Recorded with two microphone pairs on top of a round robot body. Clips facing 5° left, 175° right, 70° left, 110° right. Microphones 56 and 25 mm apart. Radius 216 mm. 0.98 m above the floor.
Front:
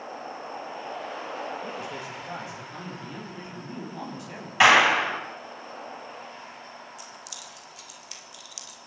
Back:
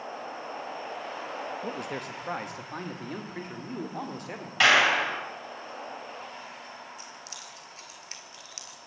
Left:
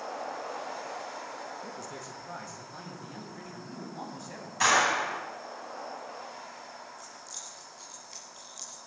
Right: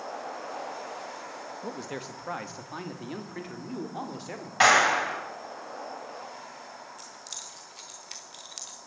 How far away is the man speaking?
About 2 m.